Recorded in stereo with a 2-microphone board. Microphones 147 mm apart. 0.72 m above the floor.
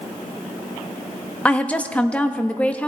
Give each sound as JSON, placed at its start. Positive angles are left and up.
{"t": 1.4, "sound": "a woman speaking", "side_deg": 10, "distance_m": 0.5}